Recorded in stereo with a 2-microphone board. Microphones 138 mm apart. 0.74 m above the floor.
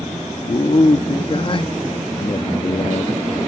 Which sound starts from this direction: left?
A man speaking, at 0.5 s.